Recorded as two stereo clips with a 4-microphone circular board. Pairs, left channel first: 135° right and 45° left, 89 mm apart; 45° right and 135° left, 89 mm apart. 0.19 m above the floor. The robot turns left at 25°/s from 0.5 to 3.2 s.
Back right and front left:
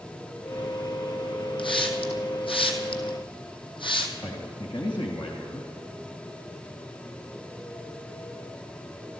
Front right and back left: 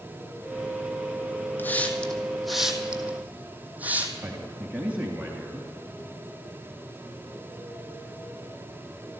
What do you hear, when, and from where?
1.6 s a hiss: 115° right, 1.6 m; by 4.1 s 155° right, 1.6 m
4.2 s a man speaking: 155° right, 2.5 m